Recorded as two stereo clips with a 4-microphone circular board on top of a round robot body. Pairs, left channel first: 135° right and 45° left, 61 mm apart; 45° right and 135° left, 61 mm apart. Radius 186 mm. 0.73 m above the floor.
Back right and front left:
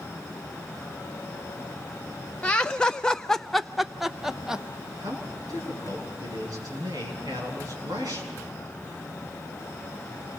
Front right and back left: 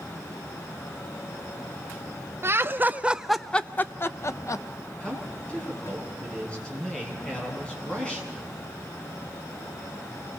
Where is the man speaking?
30° left, 7.5 m.